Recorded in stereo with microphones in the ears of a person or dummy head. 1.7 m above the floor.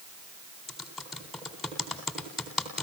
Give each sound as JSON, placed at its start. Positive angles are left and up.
{"t": 0.7, "sound": "typing on a keyboard", "side_deg": 5, "distance_m": 3.5}